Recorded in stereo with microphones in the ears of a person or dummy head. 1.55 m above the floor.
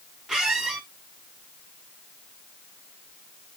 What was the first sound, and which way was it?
A squeak, centre (ahead or behind).